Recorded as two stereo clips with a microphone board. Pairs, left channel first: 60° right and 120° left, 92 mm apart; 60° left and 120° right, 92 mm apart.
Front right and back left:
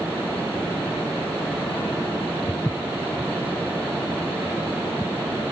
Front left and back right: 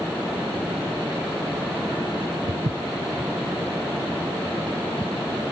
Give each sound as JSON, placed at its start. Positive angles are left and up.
{"t": 2.5, "sound": "footsteps", "azimuth_deg": -110}